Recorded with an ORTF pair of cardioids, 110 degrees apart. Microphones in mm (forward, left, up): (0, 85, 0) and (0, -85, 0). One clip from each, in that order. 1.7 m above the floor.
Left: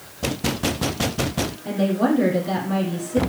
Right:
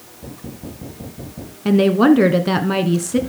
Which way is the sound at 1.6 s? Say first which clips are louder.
Right 9 dB; 65° right.